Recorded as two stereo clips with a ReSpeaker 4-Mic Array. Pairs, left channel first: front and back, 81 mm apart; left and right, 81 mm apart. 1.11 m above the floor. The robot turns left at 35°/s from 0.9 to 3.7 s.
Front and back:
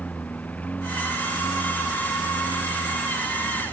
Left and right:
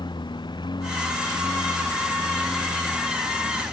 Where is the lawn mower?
70° left; by 3.7 s 30° right.